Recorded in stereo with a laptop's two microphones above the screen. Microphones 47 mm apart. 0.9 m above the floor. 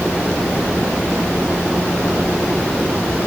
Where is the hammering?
No hammering in this recording.